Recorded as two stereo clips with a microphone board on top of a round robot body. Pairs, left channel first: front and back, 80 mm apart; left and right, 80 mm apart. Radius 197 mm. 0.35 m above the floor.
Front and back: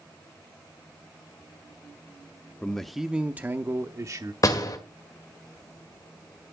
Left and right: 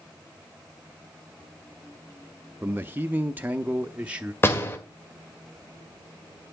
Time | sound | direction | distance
2.6 | a man speaking | 65° right | 0.8 m
4.4 | a door slam | 35° left | 2 m